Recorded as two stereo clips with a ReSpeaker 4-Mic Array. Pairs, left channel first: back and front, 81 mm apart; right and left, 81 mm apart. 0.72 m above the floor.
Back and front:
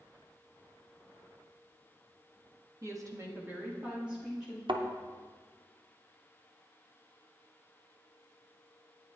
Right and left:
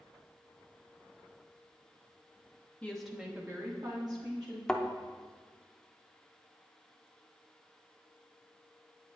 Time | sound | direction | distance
2.8 | a woman speaking | 25° right | 1.1 m
4.7 | a thud | 5° right | 0.6 m